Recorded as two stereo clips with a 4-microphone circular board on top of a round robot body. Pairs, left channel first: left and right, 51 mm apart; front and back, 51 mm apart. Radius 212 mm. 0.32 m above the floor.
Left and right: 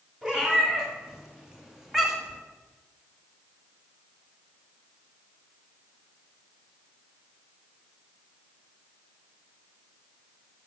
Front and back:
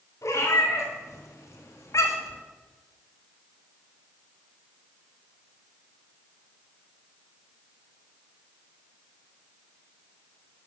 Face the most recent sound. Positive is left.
turn(degrees=-5)